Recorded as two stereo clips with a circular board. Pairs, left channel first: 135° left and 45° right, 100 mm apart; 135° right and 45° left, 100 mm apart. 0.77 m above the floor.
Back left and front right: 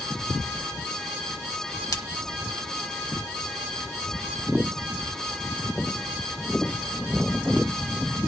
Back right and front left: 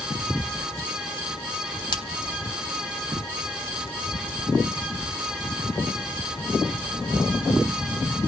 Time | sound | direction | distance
1.9 | a splash | 175° right | 1.5 m